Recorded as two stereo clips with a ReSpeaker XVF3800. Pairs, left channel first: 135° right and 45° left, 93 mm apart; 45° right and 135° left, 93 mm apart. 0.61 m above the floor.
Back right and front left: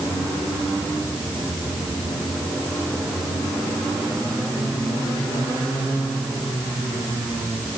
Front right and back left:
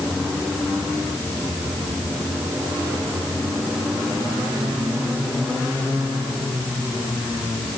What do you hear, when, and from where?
Only background noise.